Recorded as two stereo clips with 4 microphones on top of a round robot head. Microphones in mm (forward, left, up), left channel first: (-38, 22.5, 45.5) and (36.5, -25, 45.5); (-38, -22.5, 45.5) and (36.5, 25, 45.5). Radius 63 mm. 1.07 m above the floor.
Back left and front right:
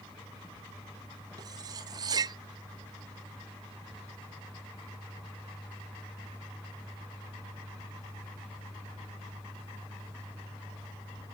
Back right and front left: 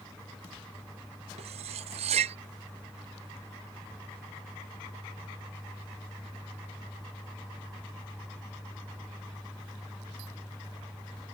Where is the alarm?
I don't hear an alarm.